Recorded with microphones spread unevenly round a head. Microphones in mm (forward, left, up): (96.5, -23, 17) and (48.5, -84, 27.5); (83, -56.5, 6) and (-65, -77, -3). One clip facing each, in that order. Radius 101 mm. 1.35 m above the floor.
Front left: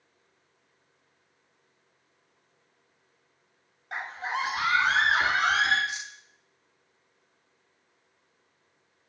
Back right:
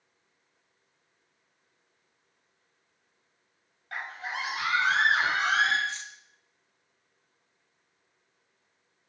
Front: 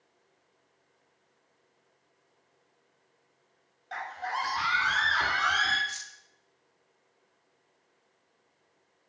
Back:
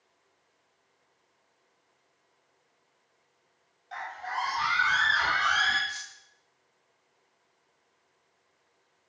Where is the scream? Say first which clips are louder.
Front left 4 dB, front 1 dB; 20° right, 1.9 m; by 5.8 s 25° left, 3.5 m.